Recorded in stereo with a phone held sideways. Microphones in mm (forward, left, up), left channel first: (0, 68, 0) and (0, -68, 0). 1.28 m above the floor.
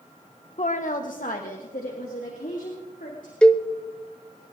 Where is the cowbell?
5° left (ahead or behind), 0.8 m.